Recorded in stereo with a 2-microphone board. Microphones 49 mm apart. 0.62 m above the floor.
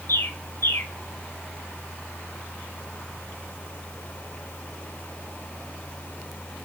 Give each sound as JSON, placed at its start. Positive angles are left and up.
{"t": 0.1, "sound": "a bird", "side_deg": 55, "distance_m": 1.2}